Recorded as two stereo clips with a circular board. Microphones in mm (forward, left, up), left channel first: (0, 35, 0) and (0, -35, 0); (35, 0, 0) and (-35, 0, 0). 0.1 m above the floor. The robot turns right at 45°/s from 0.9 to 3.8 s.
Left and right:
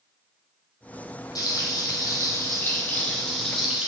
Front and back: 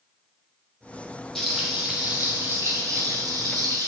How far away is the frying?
About 2 m.